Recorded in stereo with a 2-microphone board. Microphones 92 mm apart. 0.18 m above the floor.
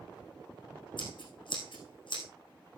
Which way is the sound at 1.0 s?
60° left (ahead or behind).